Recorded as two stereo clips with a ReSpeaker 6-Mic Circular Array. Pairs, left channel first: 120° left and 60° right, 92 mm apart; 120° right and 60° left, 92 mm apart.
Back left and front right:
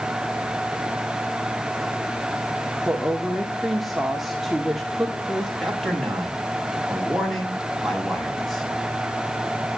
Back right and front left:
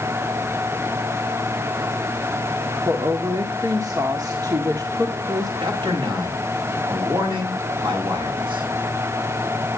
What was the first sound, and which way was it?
A woman speaking, 30° left.